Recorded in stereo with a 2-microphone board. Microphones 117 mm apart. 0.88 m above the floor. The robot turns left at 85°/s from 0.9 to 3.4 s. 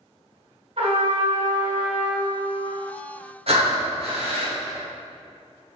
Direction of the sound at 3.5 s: 55° right (ahead or behind).